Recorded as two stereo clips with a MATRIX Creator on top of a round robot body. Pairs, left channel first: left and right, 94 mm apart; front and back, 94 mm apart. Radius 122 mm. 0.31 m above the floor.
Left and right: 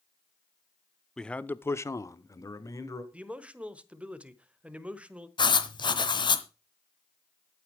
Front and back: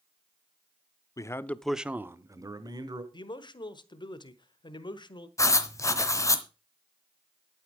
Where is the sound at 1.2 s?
10° left, 1.0 m; by 3.0 s 145° left, 1.9 m.